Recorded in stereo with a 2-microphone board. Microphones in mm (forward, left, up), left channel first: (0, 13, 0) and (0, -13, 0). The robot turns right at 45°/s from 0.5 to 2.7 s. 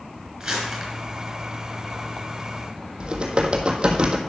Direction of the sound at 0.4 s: 20° right (ahead or behind).